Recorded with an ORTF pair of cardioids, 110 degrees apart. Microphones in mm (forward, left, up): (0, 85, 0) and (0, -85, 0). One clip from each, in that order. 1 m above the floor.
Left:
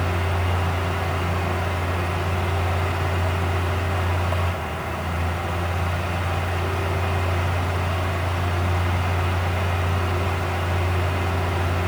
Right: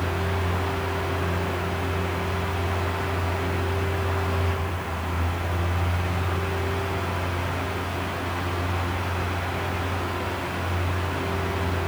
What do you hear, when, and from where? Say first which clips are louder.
0.0 s a fan: left 2 dB; 55° left, 5 m